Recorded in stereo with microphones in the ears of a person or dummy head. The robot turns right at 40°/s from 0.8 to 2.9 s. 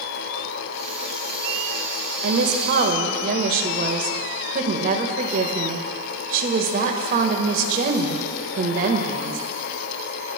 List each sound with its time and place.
2.2 s a woman speaking: 65° right (ahead or behind), 1.6 m; by 9.4 s 45° right (ahead or behind), 1.6 m